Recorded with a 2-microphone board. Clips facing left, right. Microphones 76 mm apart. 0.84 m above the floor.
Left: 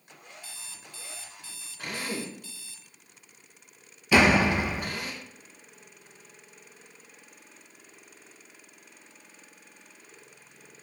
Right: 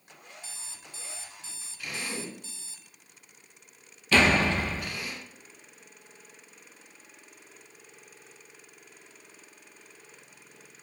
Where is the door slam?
10° left (ahead or behind), 1.2 m.